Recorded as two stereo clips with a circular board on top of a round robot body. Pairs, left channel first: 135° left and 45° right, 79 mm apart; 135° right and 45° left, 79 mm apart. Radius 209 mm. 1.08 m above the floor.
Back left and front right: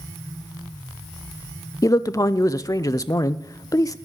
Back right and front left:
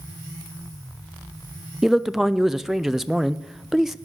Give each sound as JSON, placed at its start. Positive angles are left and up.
{"t": 1.8, "sound": "a man speaking", "azimuth_deg": 130, "distance_m": 0.6}